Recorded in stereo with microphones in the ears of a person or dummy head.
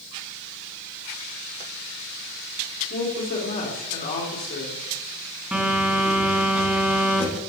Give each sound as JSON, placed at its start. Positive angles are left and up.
{"t": 2.9, "sound": "a woman speaking", "side_deg": 50, "distance_m": 3.5}
{"t": 5.5, "sound": "a phone buzzing", "side_deg": -5, "distance_m": 2.5}